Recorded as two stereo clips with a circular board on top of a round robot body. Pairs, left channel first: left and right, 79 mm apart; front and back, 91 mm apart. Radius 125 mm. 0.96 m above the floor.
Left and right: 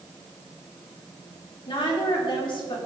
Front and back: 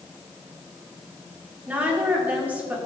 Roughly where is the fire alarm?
No fire alarm in this recording.